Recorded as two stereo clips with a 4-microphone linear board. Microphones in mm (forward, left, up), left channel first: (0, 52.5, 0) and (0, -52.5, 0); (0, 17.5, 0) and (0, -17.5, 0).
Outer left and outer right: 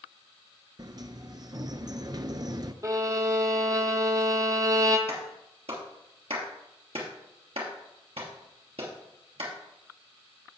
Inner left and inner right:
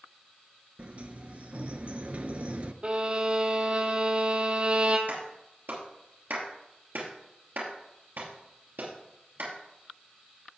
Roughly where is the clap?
Right.